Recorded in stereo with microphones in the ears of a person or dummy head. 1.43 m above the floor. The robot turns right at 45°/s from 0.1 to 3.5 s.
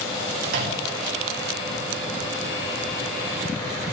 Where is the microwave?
55° right (ahead or behind), 2 m; by 1.0 s 75° right (ahead or behind), 2 m.